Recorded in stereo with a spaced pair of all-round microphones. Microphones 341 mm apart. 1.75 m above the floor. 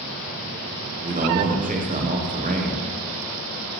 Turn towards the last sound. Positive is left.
turn(degrees=-25)  # may be behind; listen again after turning